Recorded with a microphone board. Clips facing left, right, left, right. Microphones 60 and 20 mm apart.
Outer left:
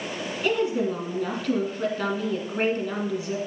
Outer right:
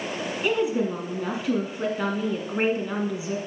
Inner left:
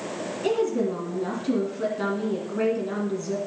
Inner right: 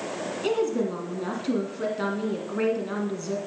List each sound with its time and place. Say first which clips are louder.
0.4 s a woman speaking: even, inner left 1 dB; 10° right (ahead or behind), 1.3 m